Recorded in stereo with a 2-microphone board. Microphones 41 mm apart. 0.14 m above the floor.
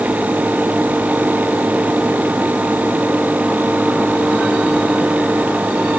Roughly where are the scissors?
I don't hear scissors.